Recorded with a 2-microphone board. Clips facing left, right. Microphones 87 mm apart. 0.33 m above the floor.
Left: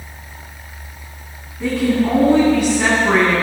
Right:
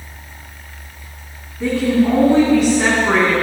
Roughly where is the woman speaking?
Centre.